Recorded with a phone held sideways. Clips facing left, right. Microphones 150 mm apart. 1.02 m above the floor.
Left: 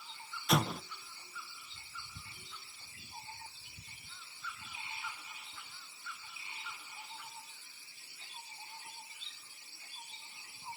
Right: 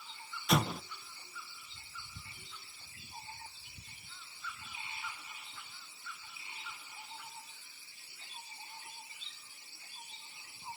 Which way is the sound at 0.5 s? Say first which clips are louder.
Right 1 dB; 5° right (ahead or behind).